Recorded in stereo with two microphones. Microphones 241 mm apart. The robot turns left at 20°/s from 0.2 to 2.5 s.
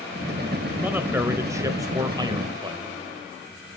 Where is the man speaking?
10° right (ahead or behind), 0.9 m; by 2.8 s 20° right (ahead or behind), 0.9 m.